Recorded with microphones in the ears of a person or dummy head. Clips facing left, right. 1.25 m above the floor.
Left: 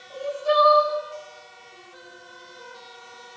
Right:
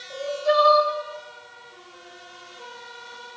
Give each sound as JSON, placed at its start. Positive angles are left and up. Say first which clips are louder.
{"t": 0.1, "sound": "crying", "louder": "right 1 dB", "side_deg": -35, "distance_m": 5.0}